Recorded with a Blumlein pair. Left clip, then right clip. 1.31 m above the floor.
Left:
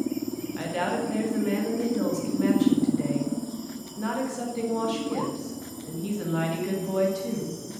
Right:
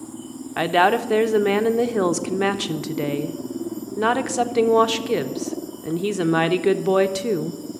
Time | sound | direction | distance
0.6 | a woman speaking | 55° right | 0.7 m